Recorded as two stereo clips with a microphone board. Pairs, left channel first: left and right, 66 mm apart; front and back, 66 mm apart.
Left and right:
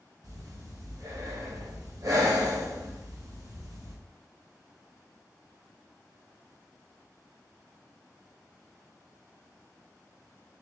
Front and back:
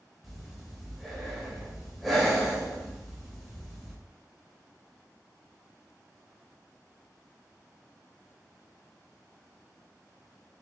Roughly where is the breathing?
Right.